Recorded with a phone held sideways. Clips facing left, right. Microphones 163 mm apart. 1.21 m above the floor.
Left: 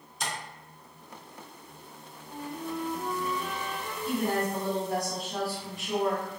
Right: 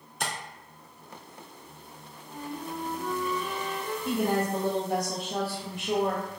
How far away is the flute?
About 1.2 m.